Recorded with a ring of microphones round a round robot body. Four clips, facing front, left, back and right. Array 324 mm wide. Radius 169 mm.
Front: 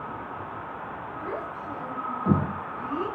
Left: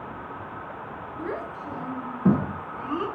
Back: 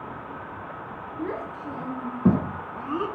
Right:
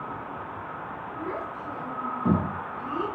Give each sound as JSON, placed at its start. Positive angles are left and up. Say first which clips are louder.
{"t": 1.2, "sound": "a child speaking", "louder": "left 2 dB, back 3 dB", "azimuth_deg": 155, "distance_m": 6.0}